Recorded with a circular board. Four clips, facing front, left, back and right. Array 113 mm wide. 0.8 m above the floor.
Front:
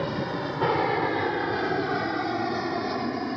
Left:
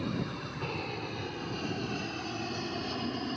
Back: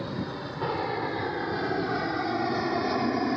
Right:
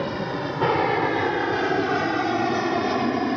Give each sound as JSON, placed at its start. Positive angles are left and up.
{"t": 0.0, "sound": "an aircraft", "azimuth_deg": -70}